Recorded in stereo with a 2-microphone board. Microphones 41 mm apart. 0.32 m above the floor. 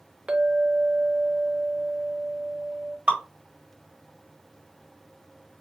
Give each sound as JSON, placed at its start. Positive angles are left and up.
{"t": 0.3, "sound": "a clink", "side_deg": -30, "distance_m": 0.7}
{"t": 3.1, "sound": "dripping", "side_deg": -30, "distance_m": 1.5}